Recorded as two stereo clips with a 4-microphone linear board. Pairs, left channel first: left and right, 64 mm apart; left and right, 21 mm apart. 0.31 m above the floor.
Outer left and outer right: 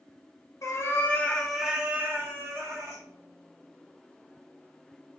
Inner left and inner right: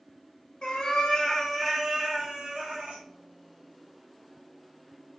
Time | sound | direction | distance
0.6 | a cat meowing | 50° left (ahead or behind) | 0.7 m